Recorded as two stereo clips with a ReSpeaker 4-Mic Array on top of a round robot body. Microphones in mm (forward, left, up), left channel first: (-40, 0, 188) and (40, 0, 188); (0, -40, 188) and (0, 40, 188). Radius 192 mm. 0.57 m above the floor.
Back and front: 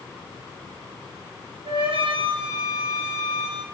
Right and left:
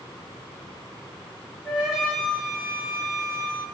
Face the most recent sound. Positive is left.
turn(degrees=5)